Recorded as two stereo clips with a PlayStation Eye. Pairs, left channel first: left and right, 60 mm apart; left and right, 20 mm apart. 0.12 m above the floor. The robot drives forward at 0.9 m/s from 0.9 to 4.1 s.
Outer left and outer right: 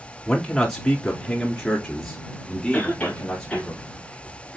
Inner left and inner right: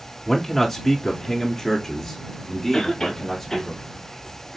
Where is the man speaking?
5° left (ahead or behind), 1.2 m.